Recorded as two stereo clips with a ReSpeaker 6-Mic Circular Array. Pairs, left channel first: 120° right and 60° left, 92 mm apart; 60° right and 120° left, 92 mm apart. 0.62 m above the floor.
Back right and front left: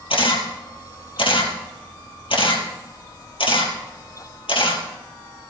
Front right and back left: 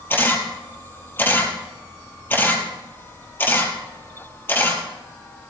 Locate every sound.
0.1 s a camera shutter: 125° right, 3 m